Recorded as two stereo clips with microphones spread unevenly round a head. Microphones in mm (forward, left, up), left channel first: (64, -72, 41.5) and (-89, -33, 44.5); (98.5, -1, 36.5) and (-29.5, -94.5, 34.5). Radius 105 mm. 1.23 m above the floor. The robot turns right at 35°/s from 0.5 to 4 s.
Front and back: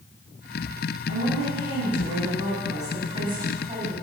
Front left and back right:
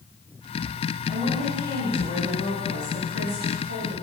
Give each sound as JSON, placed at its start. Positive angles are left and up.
{"t": 1.1, "sound": "a woman speaking", "azimuth_deg": 150, "distance_m": 7.5}